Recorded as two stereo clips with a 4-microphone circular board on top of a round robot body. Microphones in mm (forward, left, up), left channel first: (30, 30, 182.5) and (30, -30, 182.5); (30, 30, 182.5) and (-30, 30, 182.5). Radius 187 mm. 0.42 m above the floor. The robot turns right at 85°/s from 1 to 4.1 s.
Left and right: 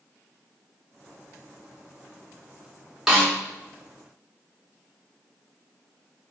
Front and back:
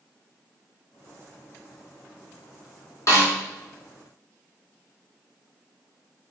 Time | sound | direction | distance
3.1 | a snare drum | 5° right | 1.8 m